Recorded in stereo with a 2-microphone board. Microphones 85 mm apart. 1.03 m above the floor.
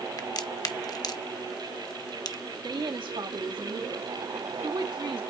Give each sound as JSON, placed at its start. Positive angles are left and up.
{"t": 0.2, "sound": "a crack", "side_deg": 50, "distance_m": 0.7}
{"t": 2.6, "sound": "a woman speaking", "side_deg": -70, "distance_m": 1.5}